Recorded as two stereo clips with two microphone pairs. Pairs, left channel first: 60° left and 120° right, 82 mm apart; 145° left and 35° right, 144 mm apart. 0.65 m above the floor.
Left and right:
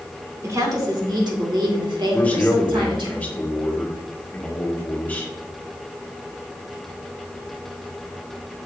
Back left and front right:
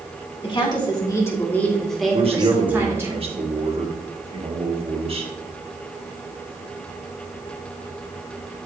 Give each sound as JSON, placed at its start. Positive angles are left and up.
{"t": 0.4, "sound": "a woman speaking", "azimuth_deg": -165, "distance_m": 2.0}
{"t": 2.1, "sound": "a man speaking", "azimuth_deg": -5, "distance_m": 1.6}